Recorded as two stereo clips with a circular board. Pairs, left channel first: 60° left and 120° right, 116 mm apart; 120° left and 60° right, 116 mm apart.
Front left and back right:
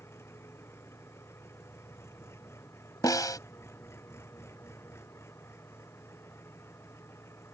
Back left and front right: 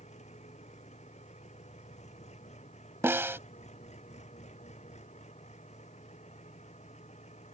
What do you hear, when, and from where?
0.0 s an engine running: 130° left
3.0 s a snare drum: 5° left